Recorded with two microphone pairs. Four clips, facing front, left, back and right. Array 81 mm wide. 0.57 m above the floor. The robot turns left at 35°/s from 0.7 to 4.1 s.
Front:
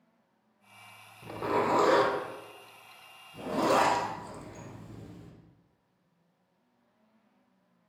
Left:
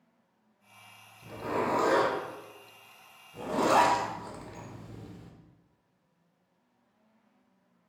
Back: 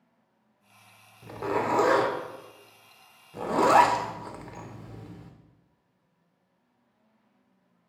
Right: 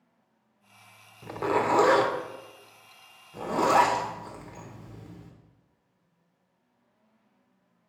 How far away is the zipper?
About 0.5 m.